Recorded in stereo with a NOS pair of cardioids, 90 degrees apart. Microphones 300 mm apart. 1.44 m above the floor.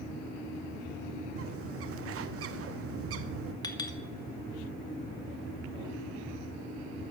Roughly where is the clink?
Ahead.